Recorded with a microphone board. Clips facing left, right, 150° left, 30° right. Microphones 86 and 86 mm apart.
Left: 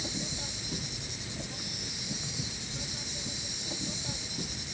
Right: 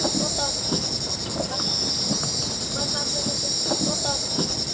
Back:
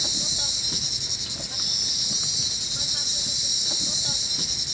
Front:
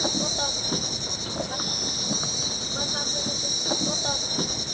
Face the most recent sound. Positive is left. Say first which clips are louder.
# right 13 dB, front 9 dB
turn(degrees=-75)